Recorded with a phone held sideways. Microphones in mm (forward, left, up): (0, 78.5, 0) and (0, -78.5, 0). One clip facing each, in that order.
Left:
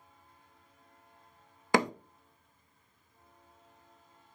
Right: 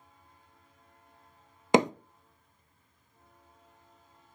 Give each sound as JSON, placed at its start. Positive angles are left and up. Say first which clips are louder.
{"t": 1.7, "sound": "hammering", "louder": "right 5 dB", "side_deg": -20, "distance_m": 0.6}